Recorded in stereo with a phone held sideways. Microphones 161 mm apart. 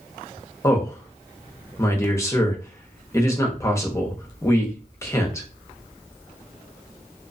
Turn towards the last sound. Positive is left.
turn(degrees=20)  # may be behind; listen again after turning